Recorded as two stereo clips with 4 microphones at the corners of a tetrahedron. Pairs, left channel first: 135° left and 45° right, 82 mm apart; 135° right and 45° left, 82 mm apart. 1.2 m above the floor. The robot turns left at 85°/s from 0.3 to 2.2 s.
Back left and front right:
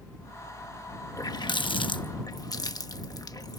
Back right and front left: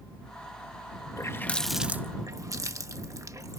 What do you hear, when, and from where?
1.2 s a running tap: straight behind; by 3.6 s 95° left